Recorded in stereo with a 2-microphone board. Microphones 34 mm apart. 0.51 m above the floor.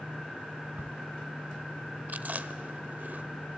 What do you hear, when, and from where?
0.8 s a crack: 75° right (ahead or behind), 0.5 m
2.1 s chewing: 60° right (ahead or behind), 0.7 m